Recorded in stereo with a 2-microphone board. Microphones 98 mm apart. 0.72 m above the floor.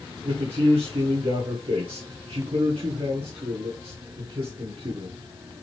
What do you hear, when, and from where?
0.2 s a man speaking: 75° right (ahead or behind), 2 m